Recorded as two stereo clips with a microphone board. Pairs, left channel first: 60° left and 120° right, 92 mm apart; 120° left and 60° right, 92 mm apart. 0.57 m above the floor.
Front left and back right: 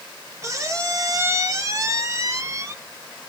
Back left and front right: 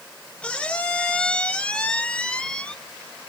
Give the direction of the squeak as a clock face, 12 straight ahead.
5 o'clock.